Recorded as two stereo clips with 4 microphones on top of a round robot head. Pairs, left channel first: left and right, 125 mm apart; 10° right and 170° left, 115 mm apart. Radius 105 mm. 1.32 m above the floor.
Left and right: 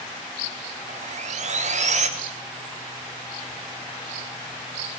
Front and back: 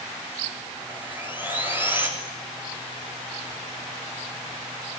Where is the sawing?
115° right, 3.5 m.